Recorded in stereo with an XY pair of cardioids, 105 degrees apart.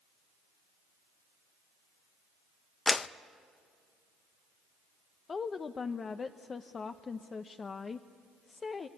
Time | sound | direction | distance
2.9 | a clap | 35° left | 0.5 m
5.3 | a woman speaking | 35° left | 0.8 m